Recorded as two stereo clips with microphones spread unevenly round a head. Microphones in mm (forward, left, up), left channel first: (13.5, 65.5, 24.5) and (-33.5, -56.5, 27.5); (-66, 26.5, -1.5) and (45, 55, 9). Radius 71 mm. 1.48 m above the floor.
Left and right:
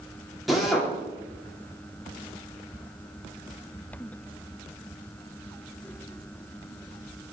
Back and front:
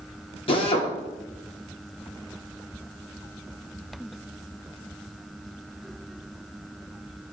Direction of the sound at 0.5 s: 160° left.